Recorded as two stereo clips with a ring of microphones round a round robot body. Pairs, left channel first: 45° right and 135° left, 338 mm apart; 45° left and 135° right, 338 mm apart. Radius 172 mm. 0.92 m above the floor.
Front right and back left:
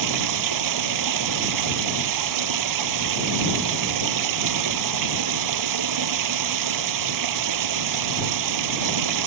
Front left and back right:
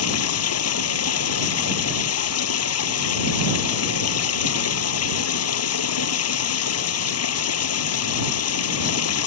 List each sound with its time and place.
0.0 s running water: 95° left